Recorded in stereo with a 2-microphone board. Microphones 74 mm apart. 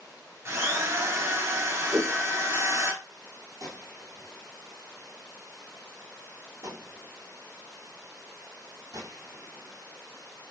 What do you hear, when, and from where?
0.5 s a drill: 40° right (ahead or behind), 0.8 m
1.9 s a whoosh: 45° right (ahead or behind), 1.4 m
3.6 s a gunshot: 45° right (ahead or behind), 1.4 m